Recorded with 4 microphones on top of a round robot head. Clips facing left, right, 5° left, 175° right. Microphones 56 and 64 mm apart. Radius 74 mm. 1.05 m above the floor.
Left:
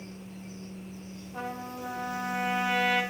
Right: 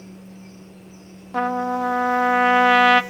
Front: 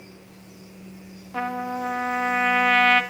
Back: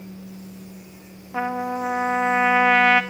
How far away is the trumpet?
About 1.2 m.